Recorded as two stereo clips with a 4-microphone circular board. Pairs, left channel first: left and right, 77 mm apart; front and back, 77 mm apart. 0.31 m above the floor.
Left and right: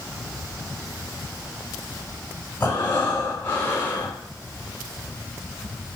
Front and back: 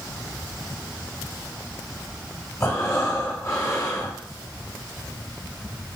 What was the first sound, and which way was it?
Breathing, 40° left.